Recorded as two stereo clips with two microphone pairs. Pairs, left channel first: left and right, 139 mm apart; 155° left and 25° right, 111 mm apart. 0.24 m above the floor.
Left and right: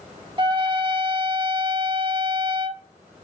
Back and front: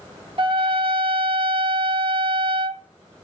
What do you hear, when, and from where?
0.4 s a trumpet: 50° right, 0.5 m